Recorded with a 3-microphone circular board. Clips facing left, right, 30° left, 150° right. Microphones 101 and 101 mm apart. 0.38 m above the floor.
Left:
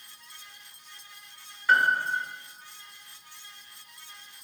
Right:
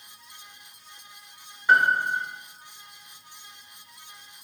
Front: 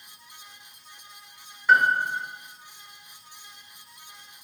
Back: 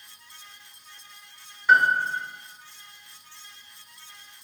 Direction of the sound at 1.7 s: 60° right.